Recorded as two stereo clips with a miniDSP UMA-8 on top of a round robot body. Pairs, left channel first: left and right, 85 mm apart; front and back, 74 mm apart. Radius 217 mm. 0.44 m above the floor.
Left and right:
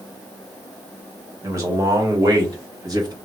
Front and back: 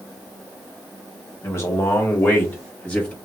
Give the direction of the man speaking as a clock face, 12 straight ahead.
1 o'clock.